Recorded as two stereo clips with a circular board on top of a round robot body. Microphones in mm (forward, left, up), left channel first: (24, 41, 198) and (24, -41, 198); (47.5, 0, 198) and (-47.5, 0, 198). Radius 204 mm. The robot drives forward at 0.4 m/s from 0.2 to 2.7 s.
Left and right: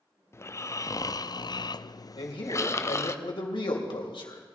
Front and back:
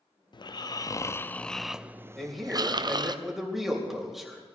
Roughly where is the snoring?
Ahead left.